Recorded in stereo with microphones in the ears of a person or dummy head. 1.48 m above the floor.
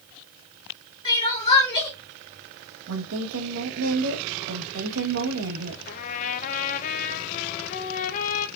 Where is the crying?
30° left (ahead or behind), 3.5 m.